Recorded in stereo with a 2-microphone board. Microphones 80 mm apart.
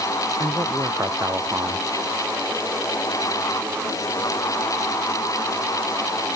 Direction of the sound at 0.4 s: 40° right (ahead or behind).